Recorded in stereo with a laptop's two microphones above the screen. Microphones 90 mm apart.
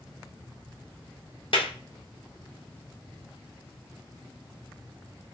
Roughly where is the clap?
Left.